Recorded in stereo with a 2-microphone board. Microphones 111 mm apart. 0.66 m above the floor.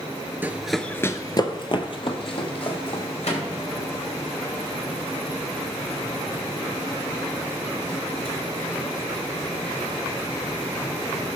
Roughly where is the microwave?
Left.